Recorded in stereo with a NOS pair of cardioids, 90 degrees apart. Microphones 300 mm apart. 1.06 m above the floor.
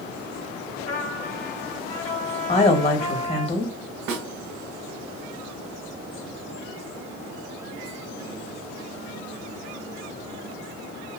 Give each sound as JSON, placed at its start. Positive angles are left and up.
{"t": 0.9, "sound": "a trumpet", "azimuth_deg": 25, "distance_m": 1.3}
{"t": 2.5, "sound": "a woman speaking", "azimuth_deg": 20, "distance_m": 1.4}
{"t": 4.1, "sound": "a snare drum", "azimuth_deg": -65, "distance_m": 1.1}